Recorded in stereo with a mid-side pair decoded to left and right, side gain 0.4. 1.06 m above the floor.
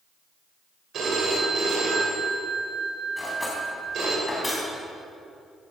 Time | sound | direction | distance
0.9 | a phone ringing | 65° right | 3.5 m
3.2 | cutlery clinking | 20° left | 4.5 m